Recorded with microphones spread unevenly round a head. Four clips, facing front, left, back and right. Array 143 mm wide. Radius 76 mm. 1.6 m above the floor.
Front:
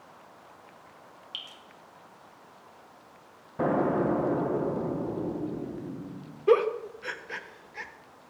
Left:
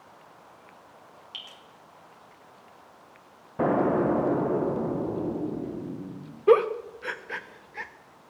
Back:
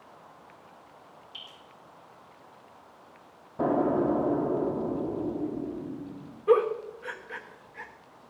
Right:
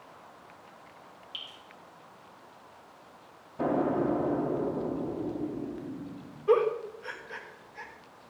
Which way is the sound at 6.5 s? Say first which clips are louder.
Left 5 dB, even; 70° left.